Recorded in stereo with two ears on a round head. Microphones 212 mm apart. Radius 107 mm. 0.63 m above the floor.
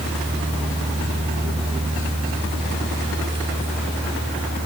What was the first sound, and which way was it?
Only background noise.